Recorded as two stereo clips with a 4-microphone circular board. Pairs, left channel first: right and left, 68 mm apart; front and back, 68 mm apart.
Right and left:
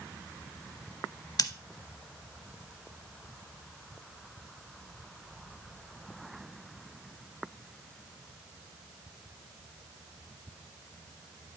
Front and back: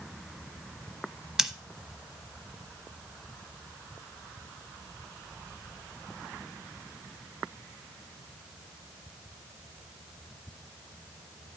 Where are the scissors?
100° right, 0.8 m.